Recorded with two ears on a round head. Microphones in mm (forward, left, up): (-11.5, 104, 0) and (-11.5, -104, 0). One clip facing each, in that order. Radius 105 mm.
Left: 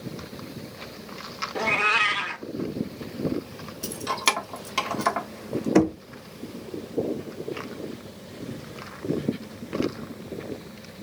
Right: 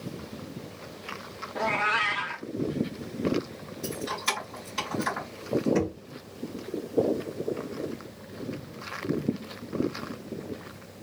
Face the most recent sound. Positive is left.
turn(degrees=70)  # may be behind; listen again after turning